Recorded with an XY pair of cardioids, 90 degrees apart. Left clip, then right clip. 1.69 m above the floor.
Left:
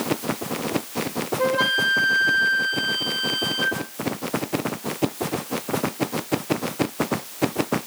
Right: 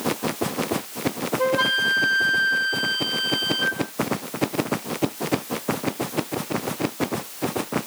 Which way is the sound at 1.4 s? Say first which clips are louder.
Even; straight ahead.